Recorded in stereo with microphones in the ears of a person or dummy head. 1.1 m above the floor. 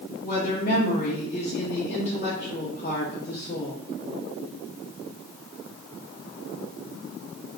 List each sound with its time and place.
0.2 s a woman speaking: 30° left (ahead or behind), 0.9 m